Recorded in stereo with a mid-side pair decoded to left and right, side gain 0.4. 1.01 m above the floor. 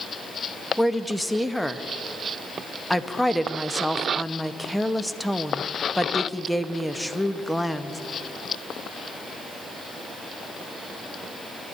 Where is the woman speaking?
5° left, 0.9 m.